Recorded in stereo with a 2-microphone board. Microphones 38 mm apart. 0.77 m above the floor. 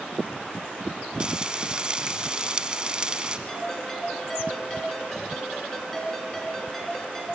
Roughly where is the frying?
Right.